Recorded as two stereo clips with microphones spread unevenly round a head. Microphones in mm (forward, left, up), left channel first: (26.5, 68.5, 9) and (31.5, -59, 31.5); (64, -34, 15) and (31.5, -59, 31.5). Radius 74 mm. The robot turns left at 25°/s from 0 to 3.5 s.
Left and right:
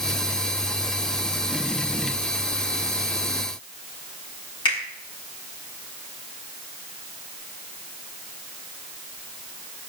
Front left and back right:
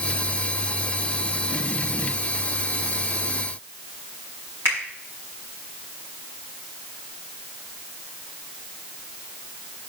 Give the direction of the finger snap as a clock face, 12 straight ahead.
7 o'clock.